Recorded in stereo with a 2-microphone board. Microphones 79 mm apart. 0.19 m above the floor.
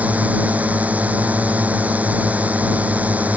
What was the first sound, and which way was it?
A drone, 20° right (ahead or behind).